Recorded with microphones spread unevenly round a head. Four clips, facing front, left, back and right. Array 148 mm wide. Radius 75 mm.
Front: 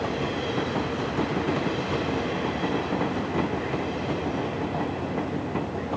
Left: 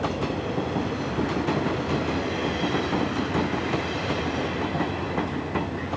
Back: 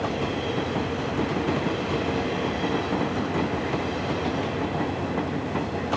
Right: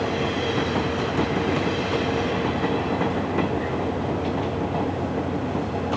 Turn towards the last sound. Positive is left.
No sound to turn to.